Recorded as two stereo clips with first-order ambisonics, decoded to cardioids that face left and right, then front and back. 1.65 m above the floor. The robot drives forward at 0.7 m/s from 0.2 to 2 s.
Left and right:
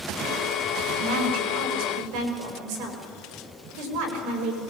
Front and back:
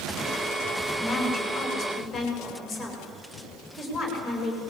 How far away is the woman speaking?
About 6.5 m.